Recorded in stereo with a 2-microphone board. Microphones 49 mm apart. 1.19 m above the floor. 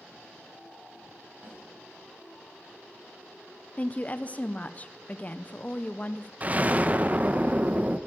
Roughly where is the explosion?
Right.